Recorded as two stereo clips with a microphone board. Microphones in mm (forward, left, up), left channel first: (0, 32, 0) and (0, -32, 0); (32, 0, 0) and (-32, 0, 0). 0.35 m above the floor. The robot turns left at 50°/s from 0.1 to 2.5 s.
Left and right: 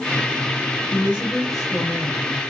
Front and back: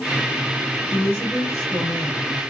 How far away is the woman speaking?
About 1.6 m.